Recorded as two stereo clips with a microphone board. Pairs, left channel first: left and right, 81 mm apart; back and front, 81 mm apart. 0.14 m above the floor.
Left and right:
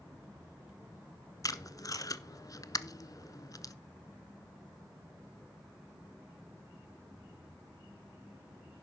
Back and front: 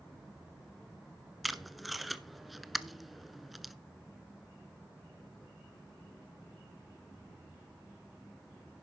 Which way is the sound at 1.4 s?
90° left.